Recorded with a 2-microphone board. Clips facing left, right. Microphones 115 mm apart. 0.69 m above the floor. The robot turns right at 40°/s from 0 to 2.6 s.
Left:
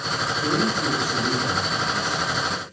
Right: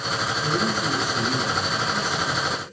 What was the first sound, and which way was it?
A man speaking, 125° left.